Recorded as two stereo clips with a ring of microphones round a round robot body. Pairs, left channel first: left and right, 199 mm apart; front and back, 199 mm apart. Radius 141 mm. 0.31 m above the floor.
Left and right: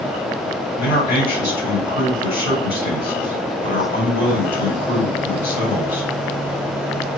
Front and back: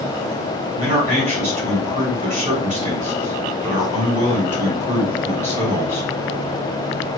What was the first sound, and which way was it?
A man speaking, 150° left.